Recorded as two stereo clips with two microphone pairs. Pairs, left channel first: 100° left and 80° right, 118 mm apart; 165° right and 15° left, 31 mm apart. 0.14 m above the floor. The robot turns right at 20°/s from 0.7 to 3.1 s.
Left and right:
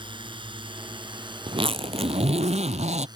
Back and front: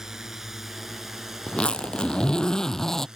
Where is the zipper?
115° right; by 3.1 s 85° right.